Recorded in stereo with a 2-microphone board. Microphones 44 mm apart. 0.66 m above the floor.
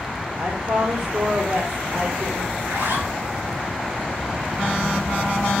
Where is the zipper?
90° right, 5 m.